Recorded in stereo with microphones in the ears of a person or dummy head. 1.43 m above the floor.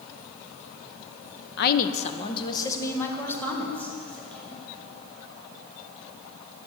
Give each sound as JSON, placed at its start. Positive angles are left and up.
{"t": 1.6, "sound": "a woman speaking", "side_deg": 60, "distance_m": 0.9}